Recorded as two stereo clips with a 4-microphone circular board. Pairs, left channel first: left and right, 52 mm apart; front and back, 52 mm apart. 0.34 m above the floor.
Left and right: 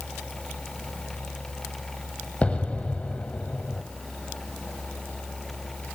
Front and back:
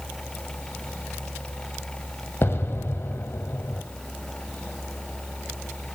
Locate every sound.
2.4 s an explosion: 30° left, 1.0 m